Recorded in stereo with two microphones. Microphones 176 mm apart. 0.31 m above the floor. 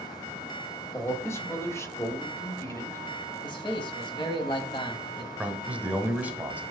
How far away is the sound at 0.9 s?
About 1.0 m.